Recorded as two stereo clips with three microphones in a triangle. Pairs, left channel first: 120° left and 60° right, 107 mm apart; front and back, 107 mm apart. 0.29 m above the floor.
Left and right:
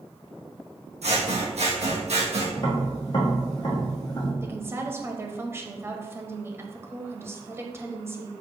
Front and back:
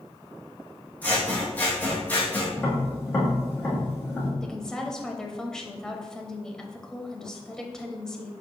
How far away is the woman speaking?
About 1.0 m.